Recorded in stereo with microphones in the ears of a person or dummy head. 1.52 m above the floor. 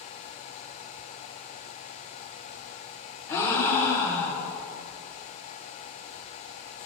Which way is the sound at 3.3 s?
10° left (ahead or behind).